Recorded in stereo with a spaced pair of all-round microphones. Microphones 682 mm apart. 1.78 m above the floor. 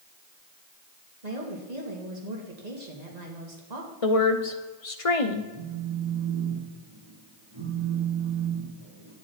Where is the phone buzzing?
35° right (ahead or behind), 4 m.